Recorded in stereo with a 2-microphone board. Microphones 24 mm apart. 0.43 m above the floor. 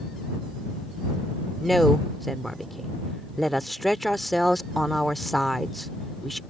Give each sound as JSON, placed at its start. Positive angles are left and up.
{"t": 1.6, "sound": "a woman speaking", "side_deg": 5}